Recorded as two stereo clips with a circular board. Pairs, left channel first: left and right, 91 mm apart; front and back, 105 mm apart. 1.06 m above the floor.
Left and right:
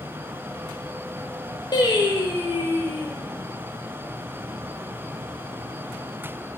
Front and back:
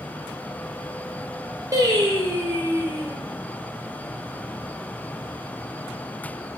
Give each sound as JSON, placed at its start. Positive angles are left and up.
{"t": 1.7, "sound": "singing", "azimuth_deg": 125, "distance_m": 0.5}